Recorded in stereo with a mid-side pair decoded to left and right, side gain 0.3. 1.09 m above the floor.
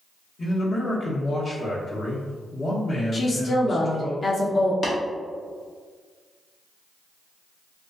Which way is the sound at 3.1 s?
55° left.